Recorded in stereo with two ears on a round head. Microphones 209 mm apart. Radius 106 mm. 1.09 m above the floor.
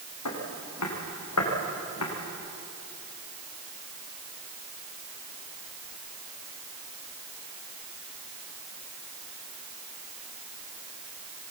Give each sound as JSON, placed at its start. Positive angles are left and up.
{"t": 0.2, "sound": "footsteps", "side_deg": 80, "distance_m": 6.5}